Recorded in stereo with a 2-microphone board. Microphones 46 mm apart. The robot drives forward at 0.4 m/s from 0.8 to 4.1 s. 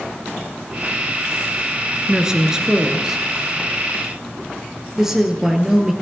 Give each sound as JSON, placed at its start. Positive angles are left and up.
{"t": 2.1, "sound": "a woman speaking", "side_deg": -15, "distance_m": 1.1}